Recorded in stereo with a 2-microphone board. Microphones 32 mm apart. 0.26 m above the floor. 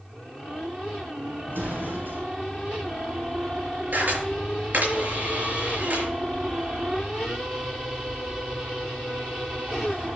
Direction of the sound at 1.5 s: 85° right.